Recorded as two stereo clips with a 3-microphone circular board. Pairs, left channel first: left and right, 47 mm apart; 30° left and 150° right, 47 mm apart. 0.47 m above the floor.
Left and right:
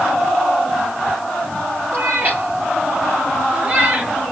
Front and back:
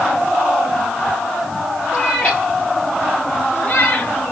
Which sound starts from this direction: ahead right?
A cat meowing, at 1.9 s.